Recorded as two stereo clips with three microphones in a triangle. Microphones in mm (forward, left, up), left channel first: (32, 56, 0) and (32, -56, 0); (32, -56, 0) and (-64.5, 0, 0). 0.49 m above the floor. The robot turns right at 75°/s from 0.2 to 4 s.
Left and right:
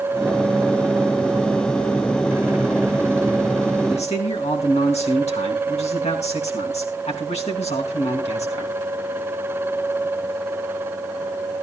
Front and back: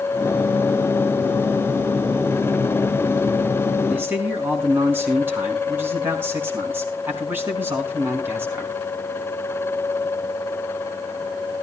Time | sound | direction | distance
3.9 | a man speaking | 70° left | 4.5 m